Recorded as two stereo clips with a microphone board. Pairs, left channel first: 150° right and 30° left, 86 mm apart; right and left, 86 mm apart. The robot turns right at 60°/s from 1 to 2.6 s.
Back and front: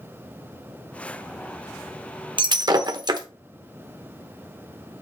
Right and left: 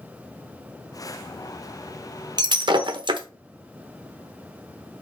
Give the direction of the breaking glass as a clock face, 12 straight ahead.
10 o'clock.